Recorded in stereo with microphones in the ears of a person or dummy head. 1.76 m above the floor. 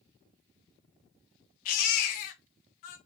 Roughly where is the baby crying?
Left.